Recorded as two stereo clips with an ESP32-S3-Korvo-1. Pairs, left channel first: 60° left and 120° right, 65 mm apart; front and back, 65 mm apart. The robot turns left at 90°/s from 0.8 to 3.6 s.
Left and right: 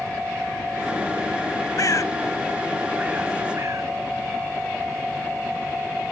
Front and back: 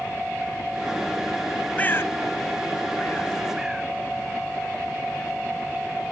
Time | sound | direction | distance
1.8 | a bird | 65° left | ?